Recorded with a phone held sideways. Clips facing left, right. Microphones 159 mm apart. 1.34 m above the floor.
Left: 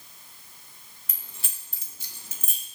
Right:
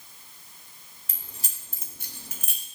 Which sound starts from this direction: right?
Keys jangling, at 1.1 s.